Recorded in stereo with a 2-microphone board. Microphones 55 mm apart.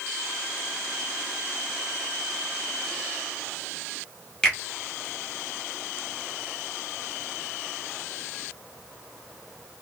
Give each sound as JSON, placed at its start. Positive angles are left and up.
{"t": 4.4, "sound": "a finger snap", "side_deg": 10, "distance_m": 1.0}